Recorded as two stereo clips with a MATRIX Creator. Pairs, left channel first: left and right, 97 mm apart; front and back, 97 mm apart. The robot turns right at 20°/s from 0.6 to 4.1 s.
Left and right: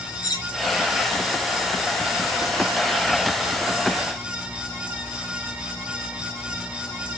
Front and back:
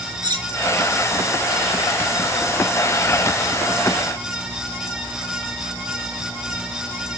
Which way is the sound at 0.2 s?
140° left.